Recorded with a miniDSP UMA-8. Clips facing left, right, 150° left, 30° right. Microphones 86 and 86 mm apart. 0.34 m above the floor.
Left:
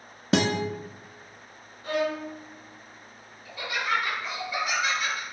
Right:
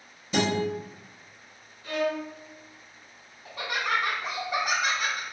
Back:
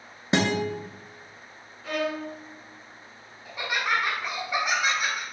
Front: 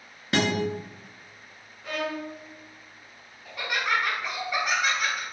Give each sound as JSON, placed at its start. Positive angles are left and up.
{"t": 0.3, "sound": "a guitar", "azimuth_deg": 80, "distance_m": 0.8}
{"t": 1.8, "sound": "a violin", "azimuth_deg": 60, "distance_m": 0.8}
{"t": 3.5, "sound": "laughter", "azimuth_deg": -135, "distance_m": 1.4}